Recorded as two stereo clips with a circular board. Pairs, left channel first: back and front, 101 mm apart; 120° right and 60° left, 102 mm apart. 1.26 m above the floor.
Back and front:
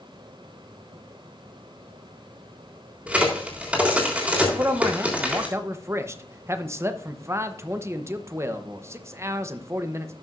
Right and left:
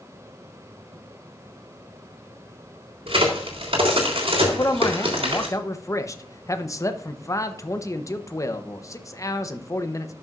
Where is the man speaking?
65° right, 0.8 m.